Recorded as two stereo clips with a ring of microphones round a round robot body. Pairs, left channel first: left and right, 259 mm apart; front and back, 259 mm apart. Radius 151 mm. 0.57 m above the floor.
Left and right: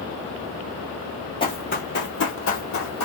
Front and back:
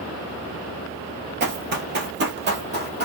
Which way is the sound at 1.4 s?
155° left.